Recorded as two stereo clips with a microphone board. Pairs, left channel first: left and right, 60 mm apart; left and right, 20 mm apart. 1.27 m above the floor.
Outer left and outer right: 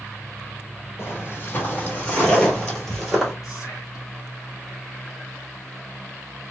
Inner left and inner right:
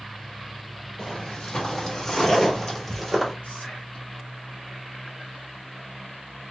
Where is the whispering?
80° left, 1.3 m.